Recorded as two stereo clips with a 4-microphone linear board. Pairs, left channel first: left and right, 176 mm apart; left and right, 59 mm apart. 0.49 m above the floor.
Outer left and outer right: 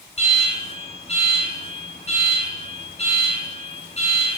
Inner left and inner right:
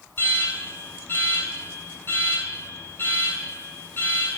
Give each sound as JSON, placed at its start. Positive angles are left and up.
{"t": 0.2, "sound": "an alarm", "side_deg": 40, "distance_m": 6.5}